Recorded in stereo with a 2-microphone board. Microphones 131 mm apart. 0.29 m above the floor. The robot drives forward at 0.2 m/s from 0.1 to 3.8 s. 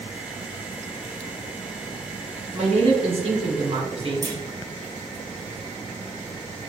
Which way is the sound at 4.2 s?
30° right (ahead or behind).